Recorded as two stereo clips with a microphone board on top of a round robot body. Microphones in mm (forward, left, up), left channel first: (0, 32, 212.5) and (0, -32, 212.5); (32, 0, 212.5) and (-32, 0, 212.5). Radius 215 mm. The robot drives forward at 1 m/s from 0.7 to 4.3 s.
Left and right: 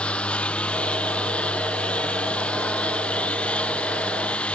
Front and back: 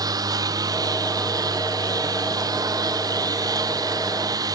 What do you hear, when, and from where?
0.0 s a lawn mower: 165° left; by 4.6 s 160° left